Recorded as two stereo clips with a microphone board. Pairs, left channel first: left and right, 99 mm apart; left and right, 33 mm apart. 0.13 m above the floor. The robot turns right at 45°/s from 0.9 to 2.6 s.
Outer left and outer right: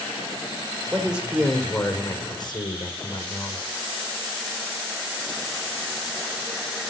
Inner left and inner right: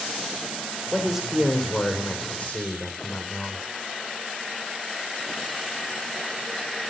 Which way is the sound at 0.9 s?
25° right.